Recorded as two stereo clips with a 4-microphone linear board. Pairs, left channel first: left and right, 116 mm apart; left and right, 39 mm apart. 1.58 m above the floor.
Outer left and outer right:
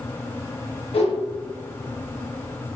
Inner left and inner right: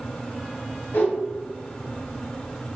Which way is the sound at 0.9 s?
55° left (ahead or behind).